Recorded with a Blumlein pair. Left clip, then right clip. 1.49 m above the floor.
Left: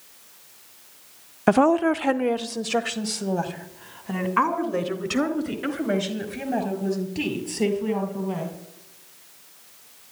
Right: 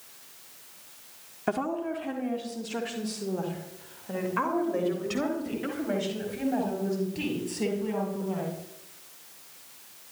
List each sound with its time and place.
1.5 s a woman speaking: 25° left, 0.5 m; by 8.5 s 75° left, 6 m